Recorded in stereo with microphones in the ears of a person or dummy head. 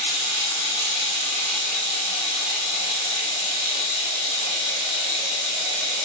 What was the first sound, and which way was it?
Running water, 55° right (ahead or behind).